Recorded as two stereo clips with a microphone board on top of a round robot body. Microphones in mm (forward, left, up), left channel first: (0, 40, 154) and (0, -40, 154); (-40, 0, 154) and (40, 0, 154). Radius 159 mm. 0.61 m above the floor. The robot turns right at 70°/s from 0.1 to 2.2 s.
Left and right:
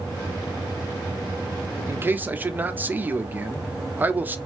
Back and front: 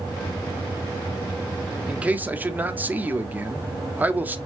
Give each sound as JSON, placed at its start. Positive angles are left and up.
{"t": 1.9, "sound": "a man speaking", "azimuth_deg": -70, "distance_m": 1.1}